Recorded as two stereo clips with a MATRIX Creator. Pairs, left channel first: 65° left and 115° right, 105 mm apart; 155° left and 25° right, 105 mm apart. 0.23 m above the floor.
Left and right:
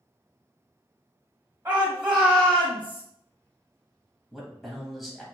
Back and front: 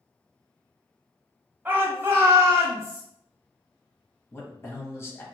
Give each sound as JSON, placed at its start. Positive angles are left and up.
{"t": 1.6, "sound": "a shout", "azimuth_deg": -75, "distance_m": 1.3}
{"t": 4.3, "sound": "a man speaking", "azimuth_deg": 160, "distance_m": 1.2}